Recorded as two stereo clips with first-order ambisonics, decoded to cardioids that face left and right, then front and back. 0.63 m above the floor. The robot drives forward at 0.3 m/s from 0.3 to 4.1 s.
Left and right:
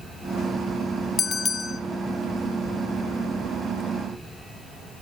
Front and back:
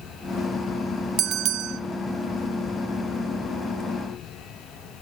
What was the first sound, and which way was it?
A bell, 155° left.